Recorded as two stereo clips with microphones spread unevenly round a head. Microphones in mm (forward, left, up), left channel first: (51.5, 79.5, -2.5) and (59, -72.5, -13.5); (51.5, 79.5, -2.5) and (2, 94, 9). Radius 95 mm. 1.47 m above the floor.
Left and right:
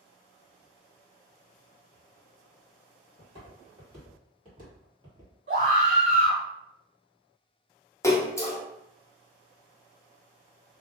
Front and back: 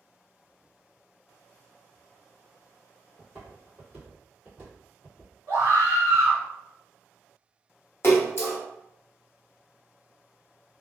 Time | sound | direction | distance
3.2 | footsteps | 135° right | 2.0 m
5.5 | a scream | 110° right | 1.4 m
8.0 | a splash | 20° left | 0.8 m